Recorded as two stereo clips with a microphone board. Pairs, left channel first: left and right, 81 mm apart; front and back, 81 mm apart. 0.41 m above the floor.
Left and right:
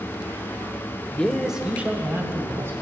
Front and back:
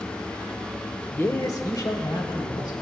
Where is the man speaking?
35° left, 1.0 m; by 2.7 s 35° right, 3 m.